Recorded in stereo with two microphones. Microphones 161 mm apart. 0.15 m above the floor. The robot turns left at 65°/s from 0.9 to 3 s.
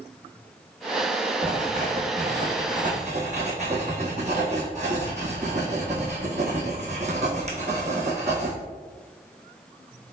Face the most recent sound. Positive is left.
turn(degrees=-135)